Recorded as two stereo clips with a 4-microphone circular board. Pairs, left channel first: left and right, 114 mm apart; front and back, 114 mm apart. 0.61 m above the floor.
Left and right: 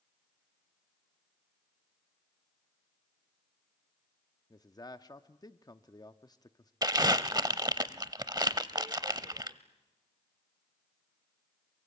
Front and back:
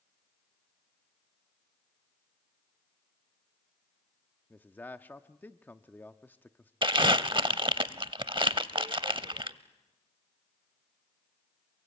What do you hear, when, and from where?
4.5 s a man speaking: 65° left, 0.7 m
6.8 s crumpling: 140° right, 0.6 m